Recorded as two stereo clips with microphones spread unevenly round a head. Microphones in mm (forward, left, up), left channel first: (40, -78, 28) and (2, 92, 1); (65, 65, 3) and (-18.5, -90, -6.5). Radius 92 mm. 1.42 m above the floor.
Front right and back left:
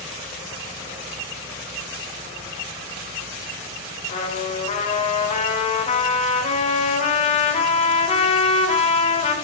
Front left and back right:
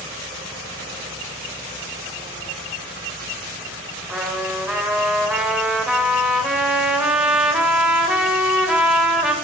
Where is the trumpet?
30° right, 2.5 m.